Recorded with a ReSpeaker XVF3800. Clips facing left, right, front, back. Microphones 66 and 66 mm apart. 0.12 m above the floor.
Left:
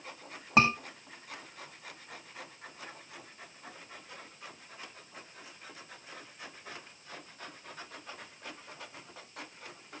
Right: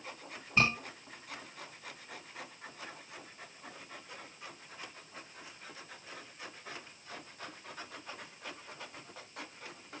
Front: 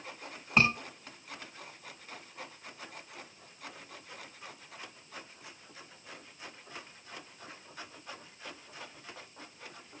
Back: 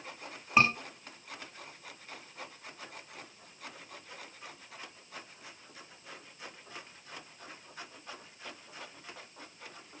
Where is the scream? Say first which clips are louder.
Left 5 dB, back 1 dB; 90° left, 7.5 m.